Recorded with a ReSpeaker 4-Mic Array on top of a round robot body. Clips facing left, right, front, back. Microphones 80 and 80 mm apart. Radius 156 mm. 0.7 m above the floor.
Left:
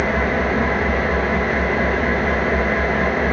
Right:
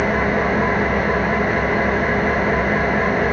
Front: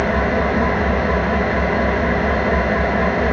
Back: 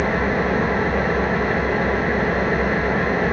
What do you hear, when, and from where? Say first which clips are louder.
0.0 s an engine running: right 1 dB, front 2 dB; 5° right, 0.9 m